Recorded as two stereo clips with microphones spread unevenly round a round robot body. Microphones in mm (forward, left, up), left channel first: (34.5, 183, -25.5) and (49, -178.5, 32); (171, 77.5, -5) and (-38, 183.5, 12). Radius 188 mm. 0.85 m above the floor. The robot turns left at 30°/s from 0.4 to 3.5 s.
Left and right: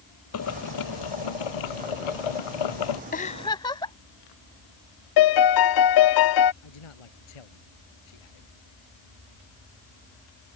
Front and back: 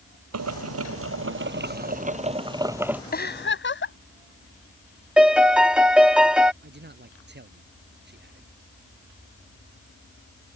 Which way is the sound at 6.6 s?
110° left.